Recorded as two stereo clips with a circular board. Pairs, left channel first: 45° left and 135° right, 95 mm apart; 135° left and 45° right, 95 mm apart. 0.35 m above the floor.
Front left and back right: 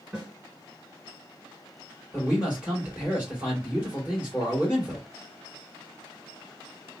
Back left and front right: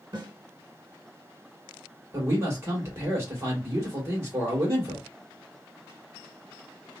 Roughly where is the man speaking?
Right.